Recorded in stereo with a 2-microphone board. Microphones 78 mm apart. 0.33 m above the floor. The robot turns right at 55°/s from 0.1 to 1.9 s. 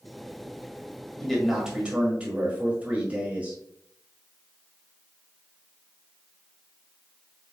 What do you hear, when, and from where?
1.2 s a man speaking: 170° left, 1.5 m; by 3.6 s 155° right, 1.5 m